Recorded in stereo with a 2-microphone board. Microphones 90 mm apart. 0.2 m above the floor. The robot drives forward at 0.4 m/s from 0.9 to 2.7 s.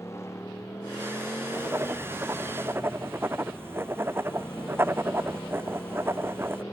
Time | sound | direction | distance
0.0 | a motorcycle | 30° left (ahead or behind) | ?
1.5 | writing | 25° right (ahead or behind) | ?